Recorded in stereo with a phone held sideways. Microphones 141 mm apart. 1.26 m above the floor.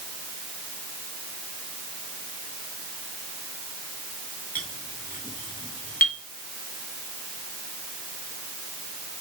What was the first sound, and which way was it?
A clink, 80° left.